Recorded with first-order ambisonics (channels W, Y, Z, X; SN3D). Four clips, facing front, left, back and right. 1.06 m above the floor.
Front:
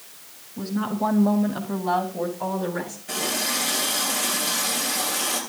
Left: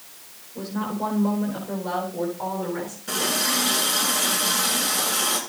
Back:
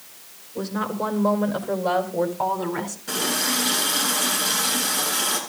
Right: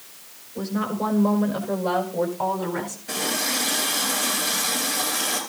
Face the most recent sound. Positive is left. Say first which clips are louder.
# left 2 dB, back 2 dB
turn(degrees=140)